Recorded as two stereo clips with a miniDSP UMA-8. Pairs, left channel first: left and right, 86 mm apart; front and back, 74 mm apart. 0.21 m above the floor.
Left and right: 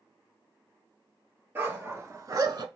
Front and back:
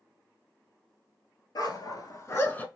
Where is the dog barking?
25° right, 1.2 m; by 2.7 s 70° right, 0.6 m.